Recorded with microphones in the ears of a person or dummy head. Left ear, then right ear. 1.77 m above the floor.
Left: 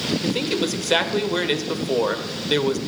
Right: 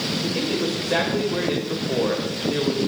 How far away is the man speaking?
About 1.6 m.